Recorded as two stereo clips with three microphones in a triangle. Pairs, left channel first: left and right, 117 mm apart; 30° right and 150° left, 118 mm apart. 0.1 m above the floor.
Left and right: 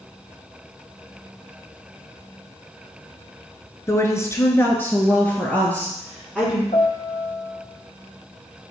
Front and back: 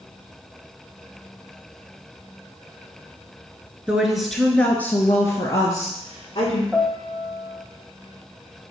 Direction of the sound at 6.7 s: 65° left.